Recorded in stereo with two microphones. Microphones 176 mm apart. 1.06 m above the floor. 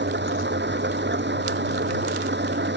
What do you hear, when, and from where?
0.0 s an engine running: 85° right